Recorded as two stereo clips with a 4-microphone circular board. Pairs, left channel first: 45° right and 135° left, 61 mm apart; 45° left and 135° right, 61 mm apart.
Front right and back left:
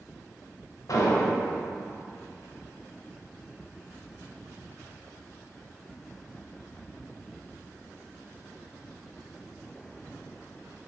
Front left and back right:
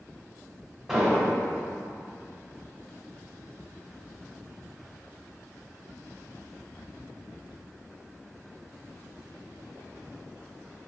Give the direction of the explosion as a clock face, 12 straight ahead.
2 o'clock.